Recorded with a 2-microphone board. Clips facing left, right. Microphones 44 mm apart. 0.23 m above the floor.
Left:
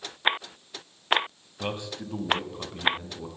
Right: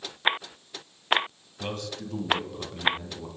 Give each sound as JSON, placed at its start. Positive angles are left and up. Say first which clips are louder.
{"t": 1.6, "sound": "a man speaking", "louder": "left 1 dB", "side_deg": 20, "distance_m": 1.2}